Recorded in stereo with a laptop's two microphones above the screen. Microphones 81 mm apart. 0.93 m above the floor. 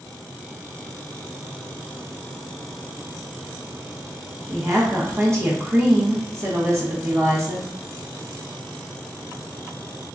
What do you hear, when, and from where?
4.5 s a woman speaking: 40° right (ahead or behind), 1.1 m